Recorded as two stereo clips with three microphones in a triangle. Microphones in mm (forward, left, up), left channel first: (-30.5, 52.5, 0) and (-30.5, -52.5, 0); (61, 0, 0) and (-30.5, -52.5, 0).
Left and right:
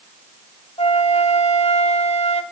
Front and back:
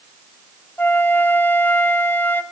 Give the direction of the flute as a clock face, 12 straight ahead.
9 o'clock.